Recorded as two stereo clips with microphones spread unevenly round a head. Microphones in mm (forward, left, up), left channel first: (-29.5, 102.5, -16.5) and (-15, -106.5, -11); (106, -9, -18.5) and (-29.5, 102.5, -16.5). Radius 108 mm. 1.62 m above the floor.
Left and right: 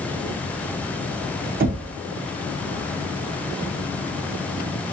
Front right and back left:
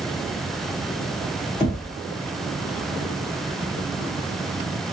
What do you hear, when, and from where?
1.6 s knocking: 95° right, 0.7 m